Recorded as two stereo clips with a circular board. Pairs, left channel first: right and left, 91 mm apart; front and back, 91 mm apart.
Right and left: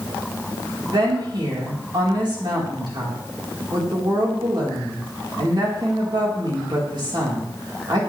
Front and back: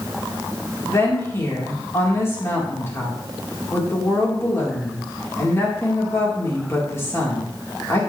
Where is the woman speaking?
60° left, 4 m.